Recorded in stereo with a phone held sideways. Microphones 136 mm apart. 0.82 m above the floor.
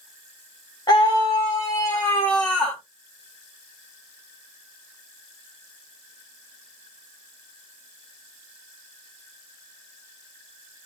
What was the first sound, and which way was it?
A scream, 30° left (ahead or behind).